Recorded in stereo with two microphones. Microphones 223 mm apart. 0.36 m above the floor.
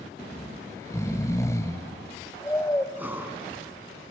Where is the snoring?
15° left (ahead or behind), 1.1 m.